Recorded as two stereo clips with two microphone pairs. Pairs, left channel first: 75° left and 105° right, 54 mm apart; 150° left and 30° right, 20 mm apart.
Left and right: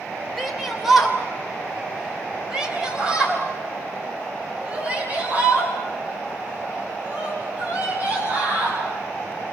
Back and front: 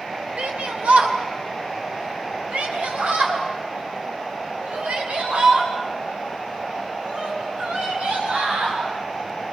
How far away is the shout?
About 4 m.